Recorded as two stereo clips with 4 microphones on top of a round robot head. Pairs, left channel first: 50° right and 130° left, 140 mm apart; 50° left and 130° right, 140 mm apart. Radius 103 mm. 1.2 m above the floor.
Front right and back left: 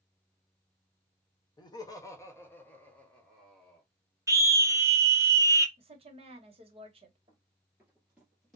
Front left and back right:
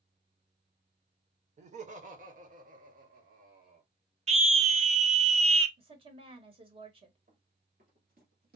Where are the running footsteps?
165° right, 1.8 m; by 8.6 s 135° right, 1.7 m.